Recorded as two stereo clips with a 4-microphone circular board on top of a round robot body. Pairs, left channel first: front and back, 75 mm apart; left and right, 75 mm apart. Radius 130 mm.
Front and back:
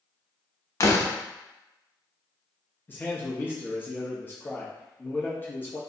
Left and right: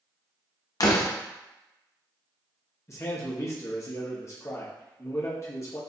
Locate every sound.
0.8 s a door slam: 50° left, 0.9 m
2.9 s a man speaking: 55° left, 1.1 m